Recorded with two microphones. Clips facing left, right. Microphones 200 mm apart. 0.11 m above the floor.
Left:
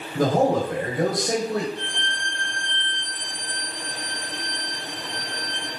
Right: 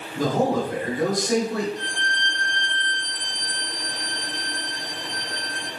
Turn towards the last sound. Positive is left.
turn(degrees=55)  # may be behind; listen again after turning